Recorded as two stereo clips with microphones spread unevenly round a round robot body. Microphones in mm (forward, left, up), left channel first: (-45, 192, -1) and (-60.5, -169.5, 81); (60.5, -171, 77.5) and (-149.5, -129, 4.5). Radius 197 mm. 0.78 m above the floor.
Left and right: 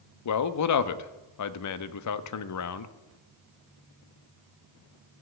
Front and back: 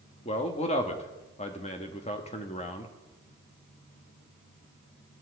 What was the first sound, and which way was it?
A man speaking, 65° left.